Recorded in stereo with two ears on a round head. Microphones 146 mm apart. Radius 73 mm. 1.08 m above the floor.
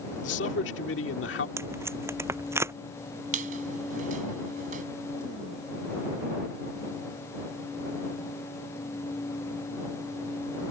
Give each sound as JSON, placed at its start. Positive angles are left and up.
{"t": 0.2, "sound": "a man speaking", "side_deg": 85}
{"t": 1.6, "sound": "tape being pulled", "side_deg": -15}
{"t": 3.3, "sound": "a squeak", "side_deg": -50}